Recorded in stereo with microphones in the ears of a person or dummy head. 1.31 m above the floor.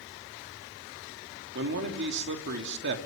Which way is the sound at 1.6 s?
60° right (ahead or behind).